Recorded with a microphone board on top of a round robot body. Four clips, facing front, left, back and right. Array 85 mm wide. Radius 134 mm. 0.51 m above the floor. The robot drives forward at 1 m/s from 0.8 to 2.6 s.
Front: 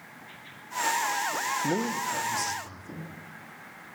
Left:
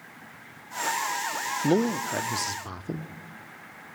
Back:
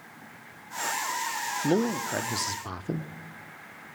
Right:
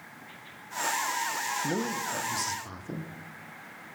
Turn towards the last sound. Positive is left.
turn(degrees=155)